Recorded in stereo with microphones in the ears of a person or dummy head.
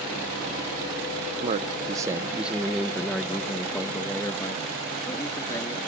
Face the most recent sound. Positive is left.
turn(degrees=20)  # may be behind; listen again after turning